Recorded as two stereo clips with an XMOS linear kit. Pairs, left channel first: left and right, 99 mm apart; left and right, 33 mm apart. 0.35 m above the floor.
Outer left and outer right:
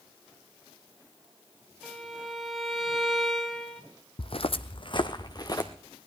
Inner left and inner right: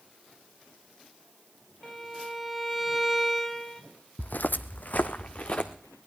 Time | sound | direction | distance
1.8 | a violin | centre (ahead or behind) | 1.3 m
4.2 | footsteps | 60° left (ahead or behind) | 0.7 m